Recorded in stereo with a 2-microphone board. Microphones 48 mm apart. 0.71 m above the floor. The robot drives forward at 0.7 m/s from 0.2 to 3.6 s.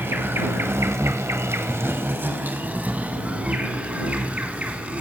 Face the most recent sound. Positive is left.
turn(degrees=-30)  # may be behind; listen again after turning